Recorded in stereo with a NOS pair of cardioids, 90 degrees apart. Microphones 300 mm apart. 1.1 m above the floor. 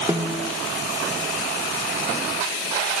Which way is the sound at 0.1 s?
10° right.